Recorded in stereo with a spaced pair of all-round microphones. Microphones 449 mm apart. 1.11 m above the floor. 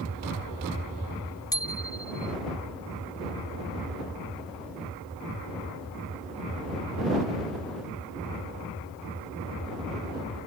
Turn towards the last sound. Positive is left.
turn(degrees=10)  # may be behind; listen again after turning